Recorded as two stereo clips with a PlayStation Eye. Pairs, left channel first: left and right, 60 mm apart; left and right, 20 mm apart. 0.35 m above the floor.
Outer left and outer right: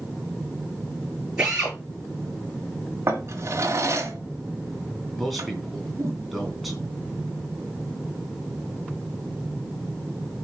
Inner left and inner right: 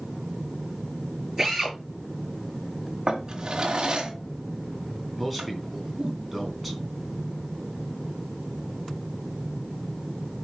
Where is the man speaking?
Centre (ahead or behind), 3 m.